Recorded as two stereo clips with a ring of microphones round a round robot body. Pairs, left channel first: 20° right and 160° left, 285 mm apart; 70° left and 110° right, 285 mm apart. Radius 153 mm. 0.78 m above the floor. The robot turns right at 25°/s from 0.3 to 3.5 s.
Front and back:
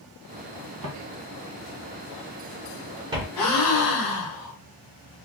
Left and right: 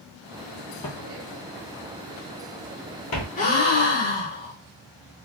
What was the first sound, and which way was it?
Footsteps, 140° left.